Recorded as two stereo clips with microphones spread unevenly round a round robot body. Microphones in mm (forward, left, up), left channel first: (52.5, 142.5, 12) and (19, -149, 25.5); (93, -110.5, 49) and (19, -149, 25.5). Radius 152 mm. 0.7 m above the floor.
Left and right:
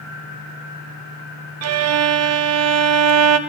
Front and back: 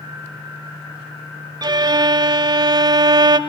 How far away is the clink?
I don't hear a clink.